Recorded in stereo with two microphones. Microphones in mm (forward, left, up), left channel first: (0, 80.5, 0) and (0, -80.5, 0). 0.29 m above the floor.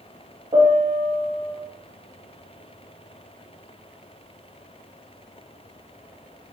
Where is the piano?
40° right (ahead or behind), 5.5 m.